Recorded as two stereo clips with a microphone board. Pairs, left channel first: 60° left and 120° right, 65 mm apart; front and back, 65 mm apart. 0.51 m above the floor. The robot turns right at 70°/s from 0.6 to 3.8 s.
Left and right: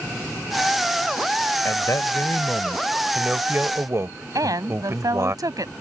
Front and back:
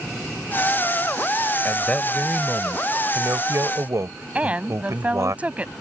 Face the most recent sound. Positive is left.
turn(degrees=-110)